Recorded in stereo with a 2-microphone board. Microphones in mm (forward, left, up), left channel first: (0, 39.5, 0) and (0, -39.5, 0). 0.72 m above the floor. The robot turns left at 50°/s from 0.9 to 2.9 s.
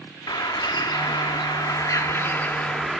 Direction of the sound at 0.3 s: 100° left.